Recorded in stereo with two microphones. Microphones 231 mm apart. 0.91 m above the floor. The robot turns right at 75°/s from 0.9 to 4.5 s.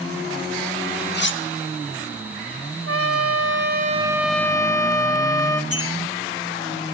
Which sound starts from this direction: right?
A trumpet, at 2.9 s.